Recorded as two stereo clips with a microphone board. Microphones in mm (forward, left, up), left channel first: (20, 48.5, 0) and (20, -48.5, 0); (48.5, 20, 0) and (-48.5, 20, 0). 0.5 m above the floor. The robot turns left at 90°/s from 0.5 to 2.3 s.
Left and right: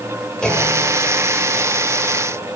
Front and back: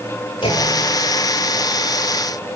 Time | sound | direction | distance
0.4 | a clunk | 10° left | 1.5 m